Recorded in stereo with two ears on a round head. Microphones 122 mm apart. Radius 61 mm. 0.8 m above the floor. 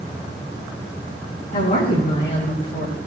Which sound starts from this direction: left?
A woman speaking, at 1.5 s.